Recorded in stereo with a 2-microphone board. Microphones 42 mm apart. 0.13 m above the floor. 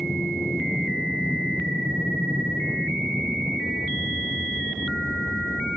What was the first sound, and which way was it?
An aircraft, 30° right (ahead or behind).